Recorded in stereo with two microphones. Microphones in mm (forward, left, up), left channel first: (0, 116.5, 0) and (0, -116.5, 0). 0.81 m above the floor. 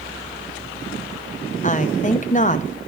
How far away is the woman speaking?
About 0.6 m.